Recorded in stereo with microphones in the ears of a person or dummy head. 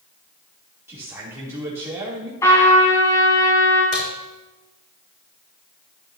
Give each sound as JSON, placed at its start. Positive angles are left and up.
{"t": 0.9, "sound": "a man speaking", "side_deg": -10, "distance_m": 3.5}
{"t": 2.4, "sound": "a trumpet", "side_deg": 20, "distance_m": 4.0}
{"t": 3.9, "sound": "a crack", "side_deg": 45, "distance_m": 3.5}